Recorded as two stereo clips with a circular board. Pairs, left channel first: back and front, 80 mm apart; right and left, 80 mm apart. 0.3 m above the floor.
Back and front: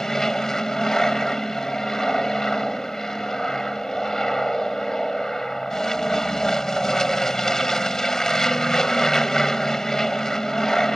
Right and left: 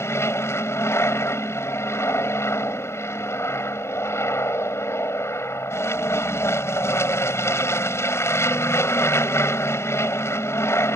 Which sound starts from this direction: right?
An aircraft, at 0.0 s.